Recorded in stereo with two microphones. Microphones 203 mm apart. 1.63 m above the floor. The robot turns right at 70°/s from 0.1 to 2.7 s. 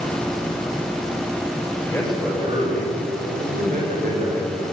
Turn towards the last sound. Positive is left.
turn(degrees=-140)